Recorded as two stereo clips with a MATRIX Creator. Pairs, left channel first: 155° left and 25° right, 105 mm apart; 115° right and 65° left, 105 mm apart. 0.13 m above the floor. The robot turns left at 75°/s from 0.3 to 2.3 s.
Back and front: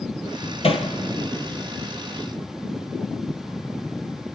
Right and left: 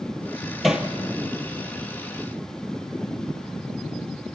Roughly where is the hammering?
Behind left.